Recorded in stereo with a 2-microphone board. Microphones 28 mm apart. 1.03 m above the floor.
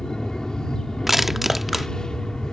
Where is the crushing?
10° right (ahead or behind).